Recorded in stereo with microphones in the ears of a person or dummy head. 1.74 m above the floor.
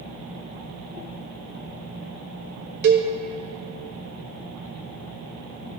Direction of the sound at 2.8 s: 60° right (ahead or behind).